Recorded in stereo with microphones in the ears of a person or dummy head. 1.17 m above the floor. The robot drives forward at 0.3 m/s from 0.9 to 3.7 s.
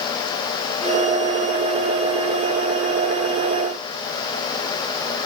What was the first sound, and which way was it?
Only background noise.